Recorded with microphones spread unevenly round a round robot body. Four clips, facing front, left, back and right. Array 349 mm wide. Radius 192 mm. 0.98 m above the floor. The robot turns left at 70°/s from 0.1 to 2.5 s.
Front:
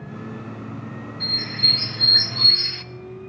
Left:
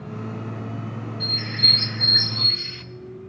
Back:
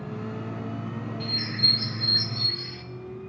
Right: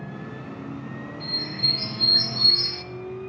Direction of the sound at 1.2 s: 85° left.